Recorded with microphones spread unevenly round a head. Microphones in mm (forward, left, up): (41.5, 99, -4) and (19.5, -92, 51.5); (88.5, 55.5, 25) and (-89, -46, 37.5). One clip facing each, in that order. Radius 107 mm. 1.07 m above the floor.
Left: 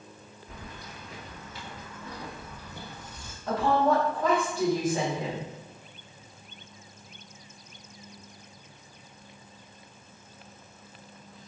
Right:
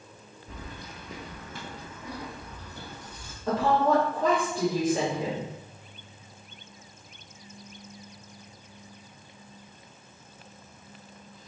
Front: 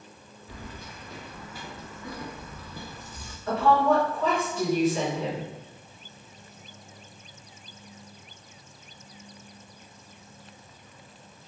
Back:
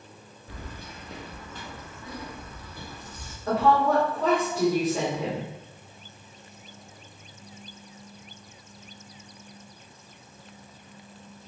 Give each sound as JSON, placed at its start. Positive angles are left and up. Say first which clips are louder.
{"t": 0.5, "sound": "keys jangling", "louder": "right 2 dB, even", "azimuth_deg": -100, "distance_m": 0.9}
{"t": 3.5, "sound": "a woman speaking", "louder": "right 1 dB, even", "azimuth_deg": -95, "distance_m": 1.4}